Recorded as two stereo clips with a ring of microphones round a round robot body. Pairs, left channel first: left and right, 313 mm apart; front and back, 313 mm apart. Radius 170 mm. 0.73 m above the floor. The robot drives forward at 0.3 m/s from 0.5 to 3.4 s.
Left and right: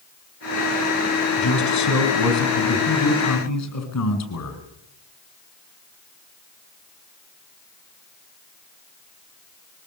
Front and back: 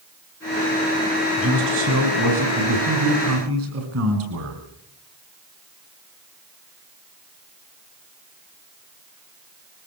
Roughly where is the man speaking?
Behind left.